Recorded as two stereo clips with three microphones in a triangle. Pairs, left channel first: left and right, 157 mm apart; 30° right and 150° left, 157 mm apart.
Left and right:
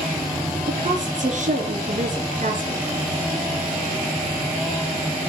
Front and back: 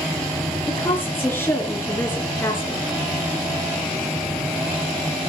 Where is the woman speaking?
105° right, 3 m.